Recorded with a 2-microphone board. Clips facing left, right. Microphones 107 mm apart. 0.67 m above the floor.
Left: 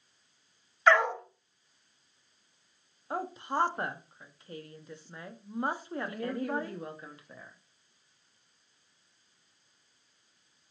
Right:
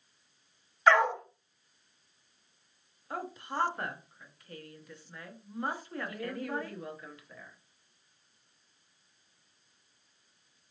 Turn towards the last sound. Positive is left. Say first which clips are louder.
# left 3 dB
turn(degrees=30)  # may be behind; listen again after turning